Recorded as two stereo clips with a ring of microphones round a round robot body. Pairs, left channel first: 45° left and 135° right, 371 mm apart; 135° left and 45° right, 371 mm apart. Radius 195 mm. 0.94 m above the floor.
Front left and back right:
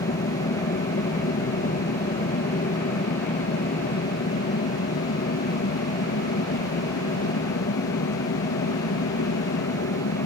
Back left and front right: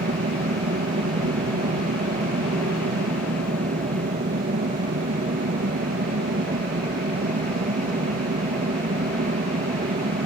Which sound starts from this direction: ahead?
An aircraft, at 0.0 s.